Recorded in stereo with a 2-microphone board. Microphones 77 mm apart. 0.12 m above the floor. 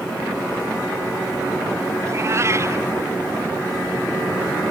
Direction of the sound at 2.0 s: 35° right (ahead or behind).